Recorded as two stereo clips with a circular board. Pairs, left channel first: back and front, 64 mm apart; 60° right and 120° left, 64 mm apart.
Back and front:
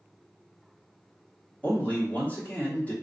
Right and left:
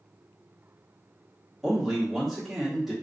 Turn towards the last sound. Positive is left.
turn(degrees=-155)